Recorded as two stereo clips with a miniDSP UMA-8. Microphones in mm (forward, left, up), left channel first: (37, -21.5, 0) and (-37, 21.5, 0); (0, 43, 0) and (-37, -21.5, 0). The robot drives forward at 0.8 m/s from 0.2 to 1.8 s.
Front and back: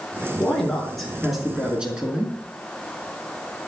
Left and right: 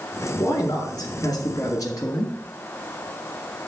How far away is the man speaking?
About 3 m.